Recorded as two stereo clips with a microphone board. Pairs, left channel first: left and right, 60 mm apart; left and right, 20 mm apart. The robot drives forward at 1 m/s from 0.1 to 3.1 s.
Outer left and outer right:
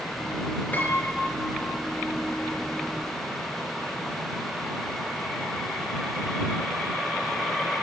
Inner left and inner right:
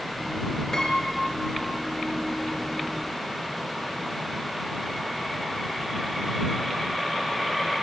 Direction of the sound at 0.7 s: 30° left (ahead or behind).